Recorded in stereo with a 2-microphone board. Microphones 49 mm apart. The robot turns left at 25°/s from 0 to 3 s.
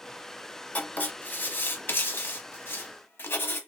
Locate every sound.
0.8 s writing: 135° left, 0.9 m; by 3.6 s 80° left, 0.9 m